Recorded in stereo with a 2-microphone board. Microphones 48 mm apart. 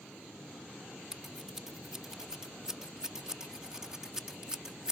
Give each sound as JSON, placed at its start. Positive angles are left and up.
{"t": 1.1, "sound": "scissors", "side_deg": -15}